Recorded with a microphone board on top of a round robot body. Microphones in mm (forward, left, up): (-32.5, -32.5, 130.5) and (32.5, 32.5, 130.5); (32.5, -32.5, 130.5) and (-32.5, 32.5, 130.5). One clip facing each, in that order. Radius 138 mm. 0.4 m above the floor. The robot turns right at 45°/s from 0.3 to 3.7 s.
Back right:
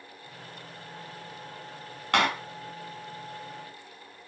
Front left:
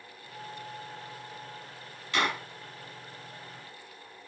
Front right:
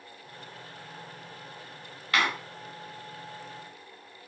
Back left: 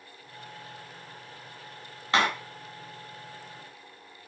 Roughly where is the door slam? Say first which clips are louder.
Back right 4 dB, back left 2 dB; behind.